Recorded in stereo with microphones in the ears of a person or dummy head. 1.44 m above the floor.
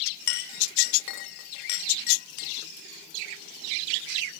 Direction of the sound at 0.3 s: 60° left (ahead or behind).